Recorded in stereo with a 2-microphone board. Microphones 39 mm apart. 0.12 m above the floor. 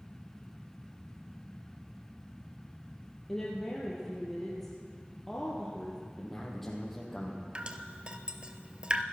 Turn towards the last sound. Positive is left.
turn(degrees=-25)  # may be behind; listen again after turning